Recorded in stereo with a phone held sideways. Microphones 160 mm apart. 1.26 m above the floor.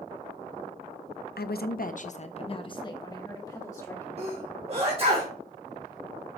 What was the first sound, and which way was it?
A woman speaking, 80° left.